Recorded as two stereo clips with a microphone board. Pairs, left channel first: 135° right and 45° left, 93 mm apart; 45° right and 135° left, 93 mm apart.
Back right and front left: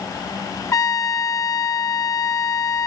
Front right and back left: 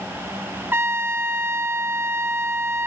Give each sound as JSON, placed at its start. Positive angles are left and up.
{"t": 0.7, "sound": "a trumpet", "azimuth_deg": -170, "distance_m": 1.5}